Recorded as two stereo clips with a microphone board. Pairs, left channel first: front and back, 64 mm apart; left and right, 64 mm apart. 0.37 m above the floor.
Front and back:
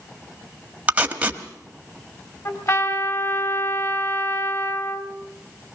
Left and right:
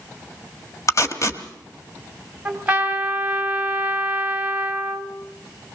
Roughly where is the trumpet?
Ahead.